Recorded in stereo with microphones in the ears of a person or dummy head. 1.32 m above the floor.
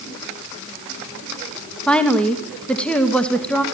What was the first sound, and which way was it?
A woman speaking, 5° left (ahead or behind).